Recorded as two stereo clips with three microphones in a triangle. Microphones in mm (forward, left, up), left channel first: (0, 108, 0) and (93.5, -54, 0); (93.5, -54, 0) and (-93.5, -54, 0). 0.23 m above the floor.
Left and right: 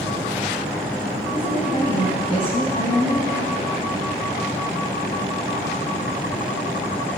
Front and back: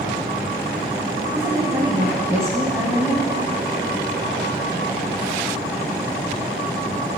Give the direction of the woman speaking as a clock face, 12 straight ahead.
8 o'clock.